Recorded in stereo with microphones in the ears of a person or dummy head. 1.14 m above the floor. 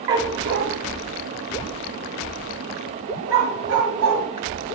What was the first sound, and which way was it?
A dog barking, 20° right (ahead or behind).